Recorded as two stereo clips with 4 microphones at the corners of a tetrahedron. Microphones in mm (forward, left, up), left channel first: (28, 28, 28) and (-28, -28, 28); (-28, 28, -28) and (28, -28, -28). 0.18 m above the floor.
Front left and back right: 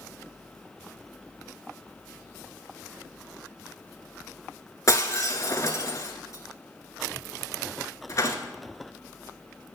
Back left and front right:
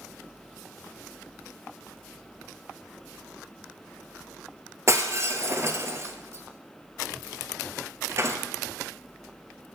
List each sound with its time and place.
4.9 s breaking glass: straight ahead, 1.1 m